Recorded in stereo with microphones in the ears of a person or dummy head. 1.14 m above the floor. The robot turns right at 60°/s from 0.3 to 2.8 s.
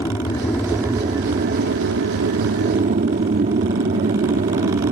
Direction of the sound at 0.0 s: 20° left (ahead or behind).